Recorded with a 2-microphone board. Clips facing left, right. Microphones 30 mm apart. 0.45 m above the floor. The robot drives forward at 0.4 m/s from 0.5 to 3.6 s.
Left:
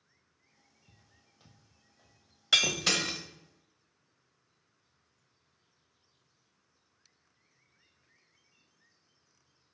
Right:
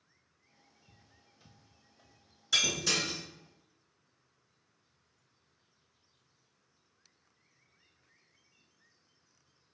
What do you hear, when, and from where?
0.9 s footsteps: 40° left (ahead or behind), 0.9 m; by 2.2 s 10° right (ahead or behind), 1.4 m
2.5 s breaking glass: 60° left (ahead or behind), 0.7 m; by 3.2 s 85° left, 0.6 m